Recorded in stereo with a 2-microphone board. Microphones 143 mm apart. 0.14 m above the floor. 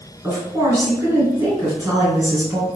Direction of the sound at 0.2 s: 20° right (ahead or behind).